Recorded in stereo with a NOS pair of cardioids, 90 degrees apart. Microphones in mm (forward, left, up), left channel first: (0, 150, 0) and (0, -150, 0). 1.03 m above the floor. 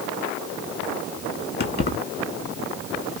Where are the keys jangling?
35° left, 1.4 m.